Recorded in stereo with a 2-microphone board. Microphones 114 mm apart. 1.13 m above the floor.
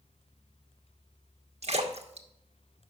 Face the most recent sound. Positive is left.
turn(degrees=-65)  # may be behind; listen again after turning